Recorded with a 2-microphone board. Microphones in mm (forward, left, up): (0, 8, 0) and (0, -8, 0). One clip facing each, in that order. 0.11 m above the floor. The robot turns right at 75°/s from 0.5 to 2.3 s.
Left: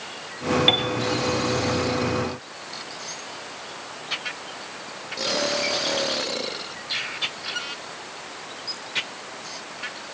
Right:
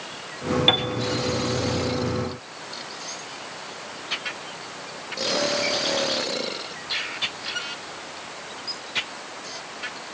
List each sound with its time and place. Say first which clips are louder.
0.7 s a piano: right 1 dB; 5° left (ahead or behind), 1.3 m; by 0.9 s 20° left (ahead or behind), 1.3 m